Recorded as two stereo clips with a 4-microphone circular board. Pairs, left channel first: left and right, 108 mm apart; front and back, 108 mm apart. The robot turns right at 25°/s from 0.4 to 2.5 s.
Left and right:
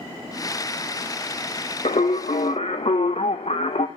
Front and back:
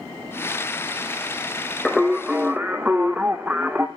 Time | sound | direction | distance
1.9 | singing | 85° left | 0.8 m